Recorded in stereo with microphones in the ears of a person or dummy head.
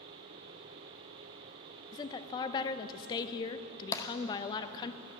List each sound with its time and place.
1.9 s a woman speaking: 20° left (ahead or behind), 0.6 m
3.9 s tapping: 15° left (ahead or behind), 0.6 m